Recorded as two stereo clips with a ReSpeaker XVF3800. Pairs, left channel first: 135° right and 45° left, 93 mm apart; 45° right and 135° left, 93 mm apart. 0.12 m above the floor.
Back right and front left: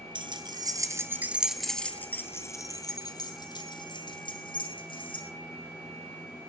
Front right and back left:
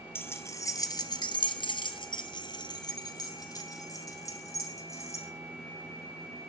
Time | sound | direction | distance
0.1 | keys jangling | 20° left | 1.9 m